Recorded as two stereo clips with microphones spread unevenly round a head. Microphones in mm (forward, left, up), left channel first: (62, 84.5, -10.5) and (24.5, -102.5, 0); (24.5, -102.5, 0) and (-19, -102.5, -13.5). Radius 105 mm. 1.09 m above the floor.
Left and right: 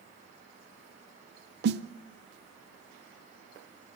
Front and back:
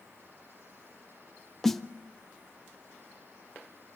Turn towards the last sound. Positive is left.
turn(degrees=-95)